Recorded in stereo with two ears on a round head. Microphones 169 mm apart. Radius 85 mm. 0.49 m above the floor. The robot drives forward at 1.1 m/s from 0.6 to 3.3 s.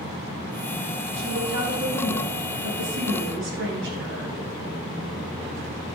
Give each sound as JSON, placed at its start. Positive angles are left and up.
{"t": 1.2, "sound": "a woman speaking", "side_deg": -65, "distance_m": 4.5}